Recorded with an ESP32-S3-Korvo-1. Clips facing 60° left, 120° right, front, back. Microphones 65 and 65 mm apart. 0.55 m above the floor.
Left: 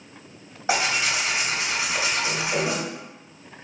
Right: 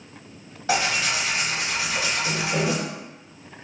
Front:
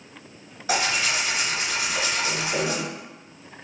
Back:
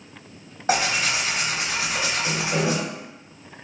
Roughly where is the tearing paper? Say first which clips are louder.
Even, back 2 dB; behind left.